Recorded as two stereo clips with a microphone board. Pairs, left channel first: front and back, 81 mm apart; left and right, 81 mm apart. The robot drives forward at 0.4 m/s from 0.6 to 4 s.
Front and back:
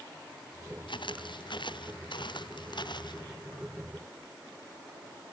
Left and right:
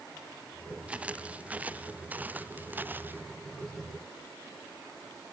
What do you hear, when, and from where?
0.9 s footsteps: 15° right; by 3.2 s 25° right